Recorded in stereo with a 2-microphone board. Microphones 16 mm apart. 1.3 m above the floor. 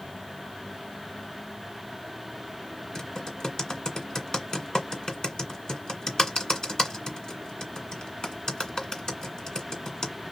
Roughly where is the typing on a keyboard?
Left.